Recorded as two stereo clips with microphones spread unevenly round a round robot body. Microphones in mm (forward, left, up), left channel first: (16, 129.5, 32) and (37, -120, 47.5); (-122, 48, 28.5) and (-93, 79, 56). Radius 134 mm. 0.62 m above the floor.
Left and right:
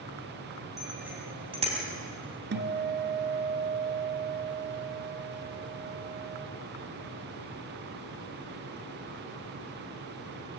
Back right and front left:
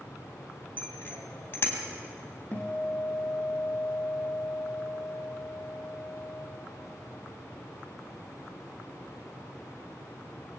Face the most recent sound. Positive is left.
turn(degrees=-40)